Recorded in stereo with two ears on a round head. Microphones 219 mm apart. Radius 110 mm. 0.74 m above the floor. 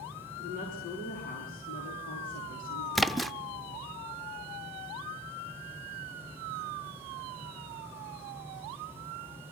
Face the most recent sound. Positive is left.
turn(degrees=0)  # may be behind; listen again after turning